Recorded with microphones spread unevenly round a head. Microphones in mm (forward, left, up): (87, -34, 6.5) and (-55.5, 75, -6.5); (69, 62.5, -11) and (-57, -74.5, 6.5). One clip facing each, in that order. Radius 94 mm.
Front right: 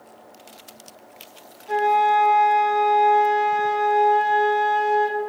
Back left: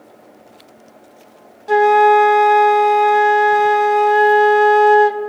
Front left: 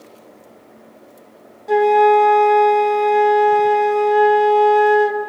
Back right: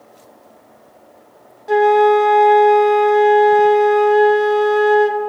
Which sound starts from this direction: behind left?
A flute, at 1.7 s.